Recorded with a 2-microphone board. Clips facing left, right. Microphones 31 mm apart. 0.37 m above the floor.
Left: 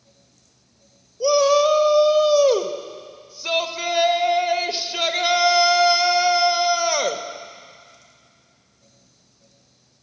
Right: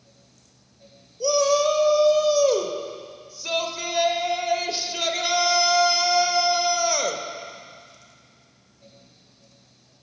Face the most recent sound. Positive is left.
turn(degrees=20)  # may be behind; listen again after turning